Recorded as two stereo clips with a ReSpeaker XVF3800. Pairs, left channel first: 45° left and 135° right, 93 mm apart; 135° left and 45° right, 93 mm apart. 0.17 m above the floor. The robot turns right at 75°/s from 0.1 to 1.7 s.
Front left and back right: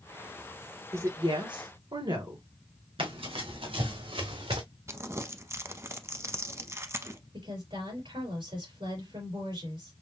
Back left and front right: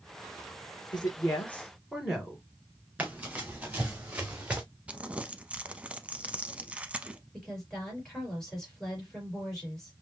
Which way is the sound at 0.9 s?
165° left.